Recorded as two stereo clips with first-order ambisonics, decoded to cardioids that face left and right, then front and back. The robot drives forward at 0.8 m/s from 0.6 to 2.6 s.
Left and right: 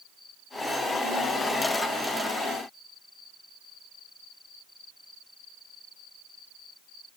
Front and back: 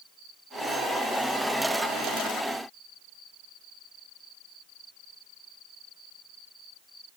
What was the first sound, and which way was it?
Only background noise.